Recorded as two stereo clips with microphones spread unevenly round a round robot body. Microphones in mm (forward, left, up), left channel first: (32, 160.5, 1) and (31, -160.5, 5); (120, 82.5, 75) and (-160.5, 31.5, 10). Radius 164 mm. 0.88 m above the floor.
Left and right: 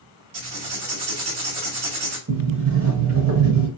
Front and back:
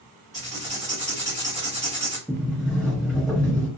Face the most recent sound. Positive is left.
turn(degrees=-65)